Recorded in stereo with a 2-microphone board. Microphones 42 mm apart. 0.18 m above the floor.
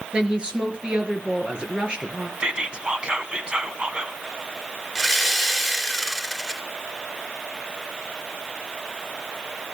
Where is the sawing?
Centre (ahead or behind), 3 m.